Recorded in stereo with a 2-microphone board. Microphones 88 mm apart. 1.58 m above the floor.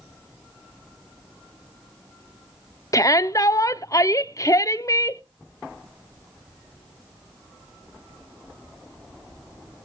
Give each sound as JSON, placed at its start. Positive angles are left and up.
{"t": 2.9, "sound": "a shout", "side_deg": 40, "distance_m": 0.7}